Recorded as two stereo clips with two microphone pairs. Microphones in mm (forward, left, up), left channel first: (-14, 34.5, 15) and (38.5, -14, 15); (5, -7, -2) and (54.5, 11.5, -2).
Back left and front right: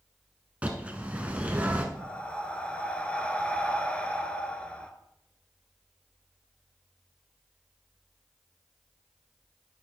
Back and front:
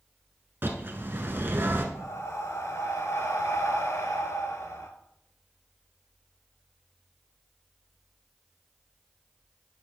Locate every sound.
0.6 s a bird: 20° left, 0.9 m
1.9 s breathing: 150° right, 0.7 m